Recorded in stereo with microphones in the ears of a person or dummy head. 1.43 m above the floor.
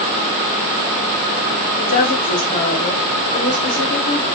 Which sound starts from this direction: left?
A woman speaking, at 1.8 s.